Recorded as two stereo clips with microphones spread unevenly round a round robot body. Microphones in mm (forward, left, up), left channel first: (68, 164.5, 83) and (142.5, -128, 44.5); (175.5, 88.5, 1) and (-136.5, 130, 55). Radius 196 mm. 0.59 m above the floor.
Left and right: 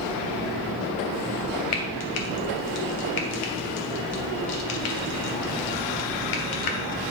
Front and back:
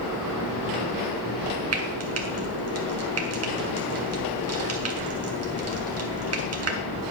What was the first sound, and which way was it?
Frying, 125° left.